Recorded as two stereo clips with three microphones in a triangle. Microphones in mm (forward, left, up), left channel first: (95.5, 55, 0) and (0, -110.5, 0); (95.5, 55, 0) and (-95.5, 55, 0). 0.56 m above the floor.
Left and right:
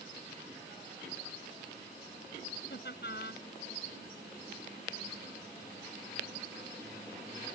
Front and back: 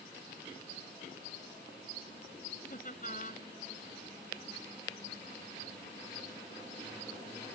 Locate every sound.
2.7 s laughter: 40° left